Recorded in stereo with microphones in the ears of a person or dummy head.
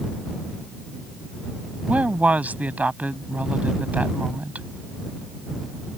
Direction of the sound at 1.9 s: 5° right (ahead or behind).